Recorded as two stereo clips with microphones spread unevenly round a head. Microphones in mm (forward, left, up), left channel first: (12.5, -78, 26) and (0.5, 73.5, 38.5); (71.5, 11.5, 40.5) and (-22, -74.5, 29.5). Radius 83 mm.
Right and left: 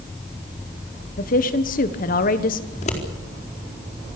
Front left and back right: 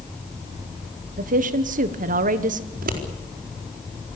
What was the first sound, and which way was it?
A woman speaking, 120° right.